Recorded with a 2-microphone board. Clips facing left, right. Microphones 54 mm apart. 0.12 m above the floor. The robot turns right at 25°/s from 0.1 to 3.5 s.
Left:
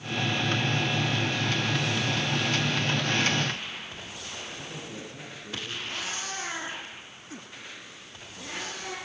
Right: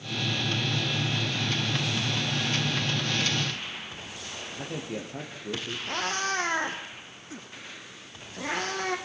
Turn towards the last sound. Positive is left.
turn(degrees=-50)  # may be behind; listen again after turning